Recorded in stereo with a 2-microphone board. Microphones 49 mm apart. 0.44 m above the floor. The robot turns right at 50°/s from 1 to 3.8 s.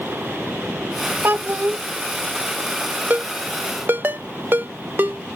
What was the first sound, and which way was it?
A child speaking, 50° right (ahead or behind).